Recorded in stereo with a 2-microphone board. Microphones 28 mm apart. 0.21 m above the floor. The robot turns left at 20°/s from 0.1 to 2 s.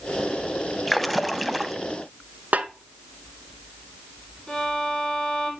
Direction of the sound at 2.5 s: 70° right (ahead or behind).